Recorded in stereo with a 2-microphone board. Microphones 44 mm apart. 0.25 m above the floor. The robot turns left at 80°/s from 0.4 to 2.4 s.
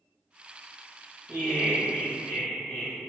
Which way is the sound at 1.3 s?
165° left.